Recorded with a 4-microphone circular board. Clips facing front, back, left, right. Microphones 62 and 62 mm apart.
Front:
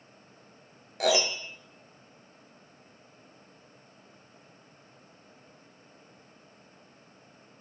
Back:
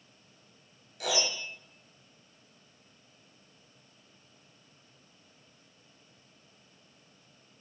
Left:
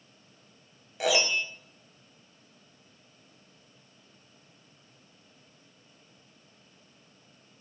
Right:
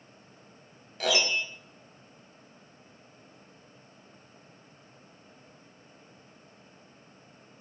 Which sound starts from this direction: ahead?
A piano, at 1.0 s.